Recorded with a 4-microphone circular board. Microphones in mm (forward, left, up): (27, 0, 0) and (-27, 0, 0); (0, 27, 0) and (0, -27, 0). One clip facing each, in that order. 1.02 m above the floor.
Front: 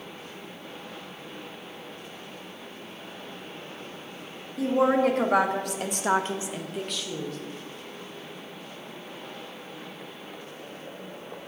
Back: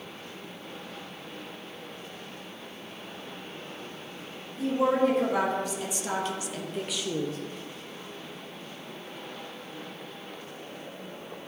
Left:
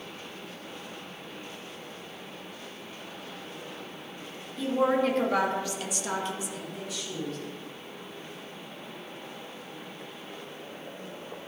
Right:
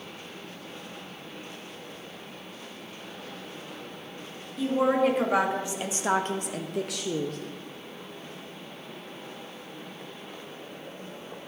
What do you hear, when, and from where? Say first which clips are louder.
4.6 s a woman speaking: front 2 dB, right 2 dB; 5° right, 2 m; by 7.4 s 120° right, 1.1 m